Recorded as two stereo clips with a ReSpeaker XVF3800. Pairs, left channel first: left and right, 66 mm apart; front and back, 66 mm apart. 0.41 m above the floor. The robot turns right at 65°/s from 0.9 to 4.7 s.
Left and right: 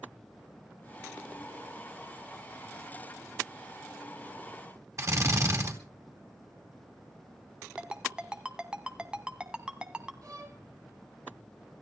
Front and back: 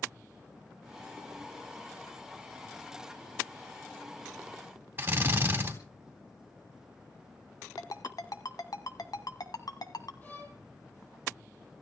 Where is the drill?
125° right, 3.5 m.